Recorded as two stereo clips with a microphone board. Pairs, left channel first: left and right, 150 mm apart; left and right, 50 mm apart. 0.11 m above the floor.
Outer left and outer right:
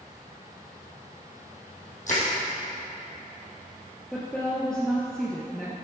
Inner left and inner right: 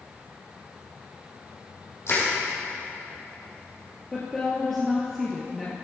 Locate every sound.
2.1 s crushing: 55° left (ahead or behind), 4.5 m
4.1 s a woman speaking: 5° left (ahead or behind), 1.8 m